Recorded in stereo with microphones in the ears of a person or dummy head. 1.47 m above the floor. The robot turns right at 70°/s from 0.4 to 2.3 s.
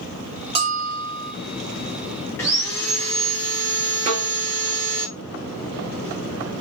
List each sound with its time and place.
0.6 s a bell: 145° right, 1.1 m; by 1.3 s 90° right, 1.1 m
2.4 s sawing: 10° left (ahead or behind), 0.9 m
4.1 s a snare drum: 40° right (ahead or behind), 1.5 m